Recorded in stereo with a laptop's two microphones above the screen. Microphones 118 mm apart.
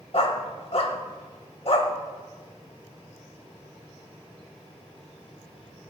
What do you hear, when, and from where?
0.1 s a dog barking: 60° left (ahead or behind), 1.1 m